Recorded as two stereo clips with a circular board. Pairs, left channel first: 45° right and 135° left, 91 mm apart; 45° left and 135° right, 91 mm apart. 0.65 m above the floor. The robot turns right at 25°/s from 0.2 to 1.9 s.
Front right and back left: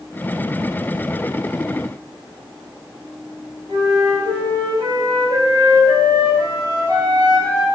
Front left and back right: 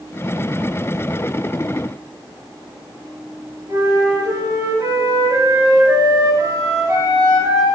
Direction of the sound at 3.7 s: 170° left.